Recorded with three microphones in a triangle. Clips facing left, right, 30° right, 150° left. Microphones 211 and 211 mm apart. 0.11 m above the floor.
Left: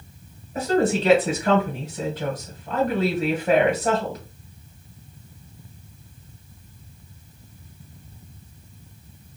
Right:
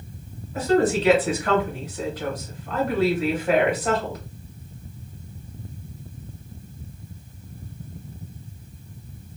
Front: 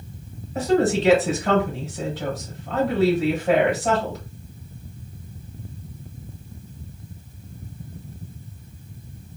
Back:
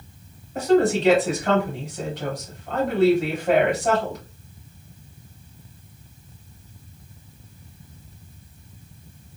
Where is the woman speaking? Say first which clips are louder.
Right 1 dB, back 1 dB; 55° left, 1.9 m.